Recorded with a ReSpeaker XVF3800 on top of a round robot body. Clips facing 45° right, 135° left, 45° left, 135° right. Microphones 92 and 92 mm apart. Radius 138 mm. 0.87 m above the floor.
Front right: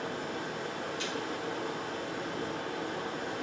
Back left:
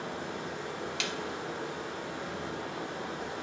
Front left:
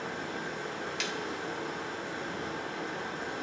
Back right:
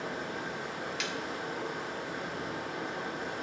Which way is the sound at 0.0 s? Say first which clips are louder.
Front right 1 dB, even; 50° right.